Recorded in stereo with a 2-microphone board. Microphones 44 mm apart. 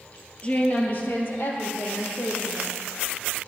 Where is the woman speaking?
35° left (ahead or behind), 1.9 m; by 2.7 s 75° left (ahead or behind), 4 m.